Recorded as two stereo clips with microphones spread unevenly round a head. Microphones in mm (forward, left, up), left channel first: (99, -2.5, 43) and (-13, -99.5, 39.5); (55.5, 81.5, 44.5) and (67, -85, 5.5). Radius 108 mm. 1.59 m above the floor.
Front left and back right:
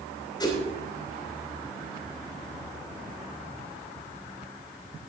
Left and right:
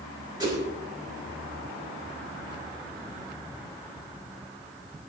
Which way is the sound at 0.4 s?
20° right.